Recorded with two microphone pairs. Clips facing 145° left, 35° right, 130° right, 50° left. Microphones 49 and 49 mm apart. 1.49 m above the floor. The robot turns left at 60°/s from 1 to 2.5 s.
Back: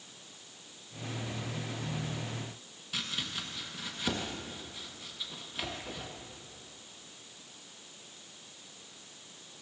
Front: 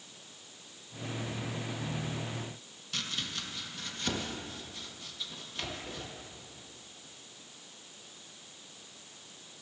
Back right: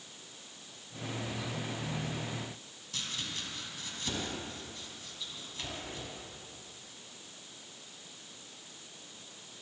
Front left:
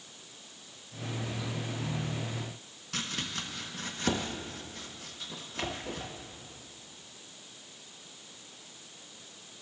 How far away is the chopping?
About 1.5 m.